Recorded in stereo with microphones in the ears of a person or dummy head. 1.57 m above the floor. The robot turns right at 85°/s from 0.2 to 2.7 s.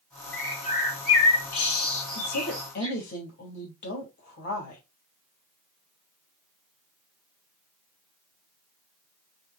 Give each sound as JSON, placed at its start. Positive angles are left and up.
{"t": 0.3, "sound": "a bird", "side_deg": 5, "distance_m": 1.9}
{"t": 2.1, "sound": "a woman speaking", "azimuth_deg": 95, "distance_m": 3.5}